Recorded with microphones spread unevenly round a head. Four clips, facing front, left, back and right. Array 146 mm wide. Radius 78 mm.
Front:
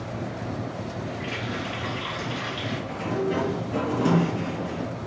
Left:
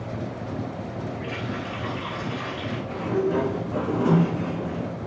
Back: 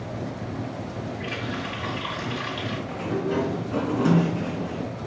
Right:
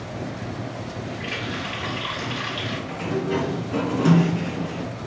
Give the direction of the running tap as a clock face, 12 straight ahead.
4 o'clock.